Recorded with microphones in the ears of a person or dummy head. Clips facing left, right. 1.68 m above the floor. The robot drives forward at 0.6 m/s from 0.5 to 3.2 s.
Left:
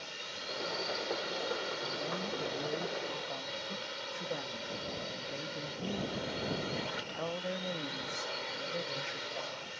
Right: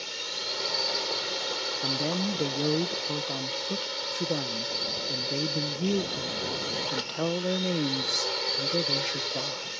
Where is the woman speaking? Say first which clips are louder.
Right 8 dB; 75° right (ahead or behind); by 9.8 s 60° right (ahead or behind).